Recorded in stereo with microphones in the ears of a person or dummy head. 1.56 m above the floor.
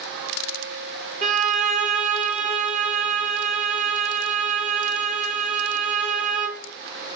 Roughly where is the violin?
Right.